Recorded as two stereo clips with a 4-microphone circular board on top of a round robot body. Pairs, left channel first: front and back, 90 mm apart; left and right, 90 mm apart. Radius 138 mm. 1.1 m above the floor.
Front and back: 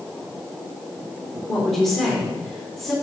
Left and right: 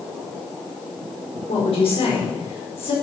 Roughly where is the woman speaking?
Left.